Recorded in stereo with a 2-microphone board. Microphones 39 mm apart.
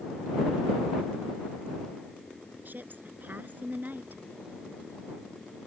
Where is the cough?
No cough in this recording.